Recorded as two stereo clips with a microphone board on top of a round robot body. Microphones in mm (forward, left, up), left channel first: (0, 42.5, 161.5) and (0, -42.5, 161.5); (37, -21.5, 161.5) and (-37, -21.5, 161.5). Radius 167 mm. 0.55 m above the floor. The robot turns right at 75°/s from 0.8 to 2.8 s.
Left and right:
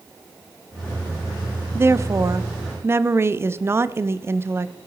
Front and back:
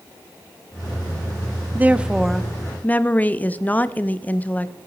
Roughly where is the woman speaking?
Behind right.